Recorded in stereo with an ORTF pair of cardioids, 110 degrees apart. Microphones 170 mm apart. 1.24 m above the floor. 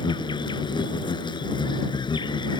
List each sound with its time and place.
0.0 s an insect: 25° left